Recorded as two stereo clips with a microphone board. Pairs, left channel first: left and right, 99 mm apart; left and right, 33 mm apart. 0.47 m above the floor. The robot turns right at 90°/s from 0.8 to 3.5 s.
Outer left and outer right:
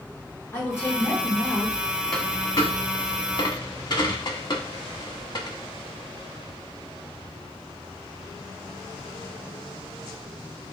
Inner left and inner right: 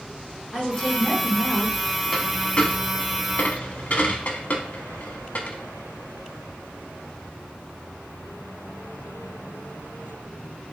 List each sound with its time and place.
0.5 s a woman speaking: 40° left, 1.5 m; by 1.8 s 130° left, 1.5 m
2.1 s a dropped coin: centre (ahead or behind), 0.7 m; by 5.6 s 50° left (ahead or behind), 0.7 m